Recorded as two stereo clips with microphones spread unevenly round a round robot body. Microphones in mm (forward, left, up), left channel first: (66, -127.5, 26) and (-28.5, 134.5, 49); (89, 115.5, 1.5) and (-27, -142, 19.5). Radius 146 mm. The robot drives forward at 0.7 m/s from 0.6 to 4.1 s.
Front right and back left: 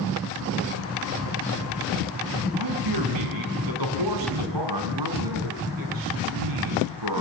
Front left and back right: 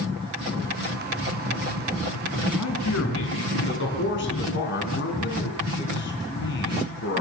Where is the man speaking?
110° left, 5 m; by 7.2 s 120° left, 5.5 m.